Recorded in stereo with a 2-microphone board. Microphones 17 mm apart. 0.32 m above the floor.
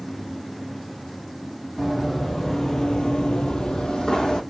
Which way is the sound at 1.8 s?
5° left (ahead or behind).